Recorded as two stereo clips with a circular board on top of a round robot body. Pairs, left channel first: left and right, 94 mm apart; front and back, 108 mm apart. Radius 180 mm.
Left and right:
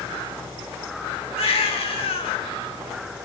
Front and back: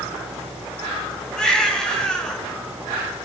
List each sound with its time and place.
1.4 s a baby crying: 85° left, 5 m